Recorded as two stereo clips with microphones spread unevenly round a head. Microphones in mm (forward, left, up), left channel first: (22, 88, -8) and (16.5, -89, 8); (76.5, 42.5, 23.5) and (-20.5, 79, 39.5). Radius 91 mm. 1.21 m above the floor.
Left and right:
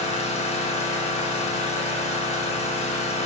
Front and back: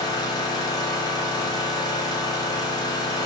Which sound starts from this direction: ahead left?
An engine running, at 0.0 s.